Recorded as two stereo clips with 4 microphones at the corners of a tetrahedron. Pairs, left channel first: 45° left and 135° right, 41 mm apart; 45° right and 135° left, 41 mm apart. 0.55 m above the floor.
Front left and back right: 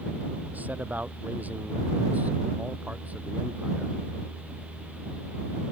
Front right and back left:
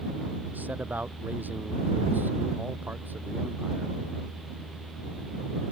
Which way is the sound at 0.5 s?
Straight behind.